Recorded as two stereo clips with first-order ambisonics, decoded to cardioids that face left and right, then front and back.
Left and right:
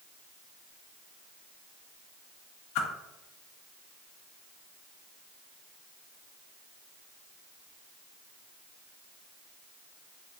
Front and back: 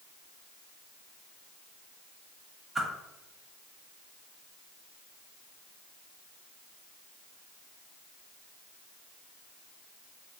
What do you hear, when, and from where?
2.8 s a whoosh: 95° left, 0.5 m